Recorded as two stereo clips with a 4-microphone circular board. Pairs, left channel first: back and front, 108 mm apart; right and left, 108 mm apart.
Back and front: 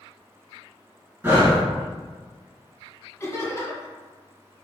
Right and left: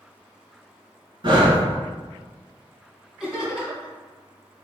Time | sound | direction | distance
1.2 | breathing | 65° left | 1.1 m
3.2 | laughter | 170° left | 1.7 m